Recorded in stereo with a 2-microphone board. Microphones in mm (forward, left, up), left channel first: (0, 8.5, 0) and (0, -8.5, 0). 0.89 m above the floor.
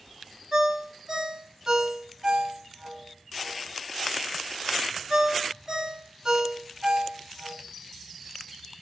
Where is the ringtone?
40° right (ahead or behind), 1.1 m.